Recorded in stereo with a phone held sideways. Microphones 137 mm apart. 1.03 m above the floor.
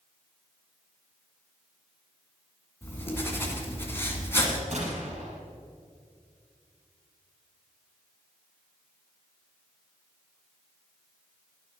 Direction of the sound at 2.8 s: 15° left (ahead or behind).